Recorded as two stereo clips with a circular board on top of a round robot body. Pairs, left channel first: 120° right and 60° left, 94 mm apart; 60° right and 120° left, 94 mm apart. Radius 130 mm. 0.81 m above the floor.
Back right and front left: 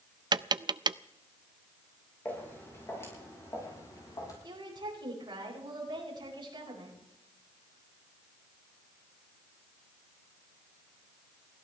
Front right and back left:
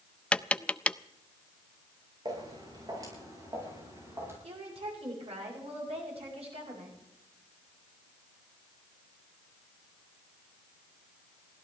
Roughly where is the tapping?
Ahead.